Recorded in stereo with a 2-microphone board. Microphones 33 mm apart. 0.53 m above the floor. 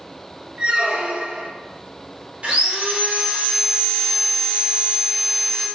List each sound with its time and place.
0.6 s a squeak: 30° right (ahead or behind), 0.6 m
2.4 s sawing: 30° right (ahead or behind), 1.5 m